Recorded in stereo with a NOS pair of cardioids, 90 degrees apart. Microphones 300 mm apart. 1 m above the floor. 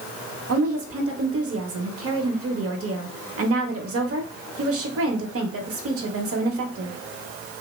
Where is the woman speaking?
50° right, 1.0 m.